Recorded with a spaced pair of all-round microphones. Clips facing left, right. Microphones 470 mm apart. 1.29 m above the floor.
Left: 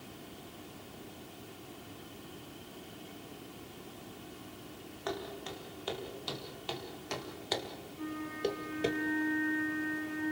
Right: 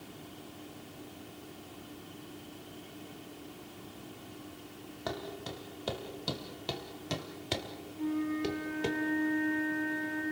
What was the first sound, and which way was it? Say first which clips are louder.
Footsteps: even; 55° right (ahead or behind).